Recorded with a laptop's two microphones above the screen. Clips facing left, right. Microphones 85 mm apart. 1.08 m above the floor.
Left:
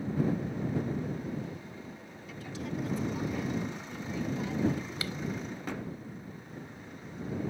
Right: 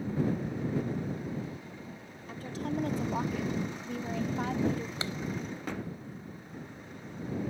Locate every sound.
2.3 s a woman speaking: 40° right (ahead or behind); by 4.9 s 45° right (ahead or behind)
5.0 s a clap: 30° right (ahead or behind)